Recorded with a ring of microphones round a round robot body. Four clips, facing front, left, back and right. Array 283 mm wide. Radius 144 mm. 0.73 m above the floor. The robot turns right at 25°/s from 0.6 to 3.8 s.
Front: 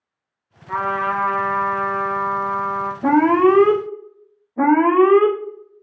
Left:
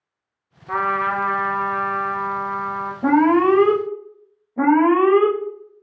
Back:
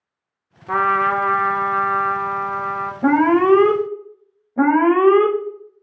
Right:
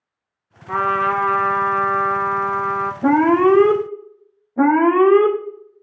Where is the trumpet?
175° right, 0.8 m; by 2.9 s 120° right, 0.8 m.